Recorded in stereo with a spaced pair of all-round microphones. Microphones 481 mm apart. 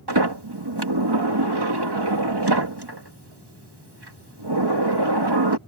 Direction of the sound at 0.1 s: 55° right (ahead or behind).